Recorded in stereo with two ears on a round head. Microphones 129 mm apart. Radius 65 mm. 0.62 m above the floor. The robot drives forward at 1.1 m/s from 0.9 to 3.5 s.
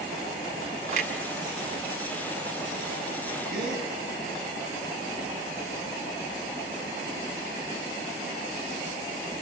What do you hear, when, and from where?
0.9 s a clunk: 60° right (ahead or behind), 2.0 m; by 3.9 s 25° right (ahead or behind), 4 m
3.5 s a gasp: 70° right (ahead or behind), 7.5 m